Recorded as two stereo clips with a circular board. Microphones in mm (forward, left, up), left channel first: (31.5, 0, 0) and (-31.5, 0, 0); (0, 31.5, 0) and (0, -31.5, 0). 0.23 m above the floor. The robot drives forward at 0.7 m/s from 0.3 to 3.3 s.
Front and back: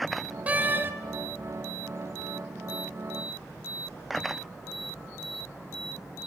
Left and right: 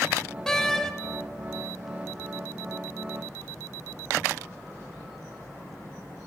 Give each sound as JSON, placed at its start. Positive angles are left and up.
{"t": 0.5, "sound": "a door slam", "azimuth_deg": 160, "distance_m": 1.1}